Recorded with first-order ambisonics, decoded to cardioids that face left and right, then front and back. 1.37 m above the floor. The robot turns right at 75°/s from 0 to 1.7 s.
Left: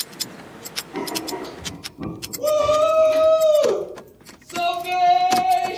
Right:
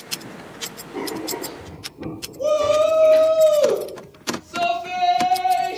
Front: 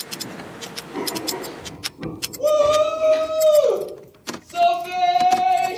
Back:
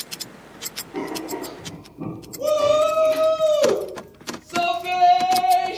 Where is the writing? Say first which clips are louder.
Even, front 3 dB; 90° left, 2.0 m; by 3.3 s 145° left, 2.0 m.